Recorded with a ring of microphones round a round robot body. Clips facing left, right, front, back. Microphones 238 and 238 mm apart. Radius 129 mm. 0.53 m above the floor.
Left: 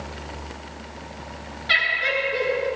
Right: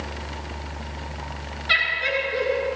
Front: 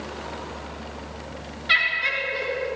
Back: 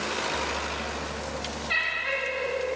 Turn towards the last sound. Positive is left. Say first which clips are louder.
# even, back 1 dB
turn(degrees=-5)